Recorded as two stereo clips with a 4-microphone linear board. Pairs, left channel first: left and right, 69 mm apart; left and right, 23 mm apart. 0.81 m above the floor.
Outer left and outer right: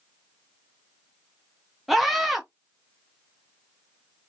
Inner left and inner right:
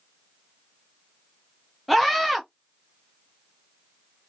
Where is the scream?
Centre (ahead or behind), 0.9 m.